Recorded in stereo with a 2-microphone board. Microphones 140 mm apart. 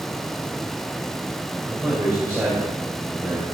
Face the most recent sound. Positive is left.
turn(degrees=-25)  # may be behind; listen again after turning